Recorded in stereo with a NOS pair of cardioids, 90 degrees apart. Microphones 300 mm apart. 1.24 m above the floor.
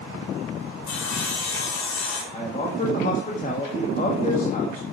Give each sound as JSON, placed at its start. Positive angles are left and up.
{"t": 0.9, "sound": "sawing", "azimuth_deg": 60, "distance_m": 2.5}
{"t": 2.3, "sound": "a man speaking", "azimuth_deg": 25, "distance_m": 1.7}